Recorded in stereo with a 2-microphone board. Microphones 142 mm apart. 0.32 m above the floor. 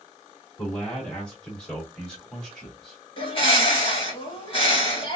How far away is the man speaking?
About 1.8 m.